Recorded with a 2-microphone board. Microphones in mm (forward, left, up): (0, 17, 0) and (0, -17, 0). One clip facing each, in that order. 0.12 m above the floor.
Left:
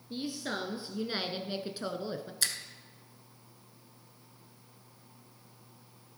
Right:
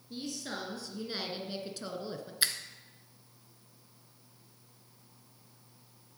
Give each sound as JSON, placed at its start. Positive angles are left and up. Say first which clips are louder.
{"t": 0.1, "sound": "a woman speaking", "louder": "left 3 dB", "side_deg": 20, "distance_m": 1.4}
{"t": 2.4, "sound": "a finger snap", "louder": "right 3 dB", "side_deg": -20, "distance_m": 1.0}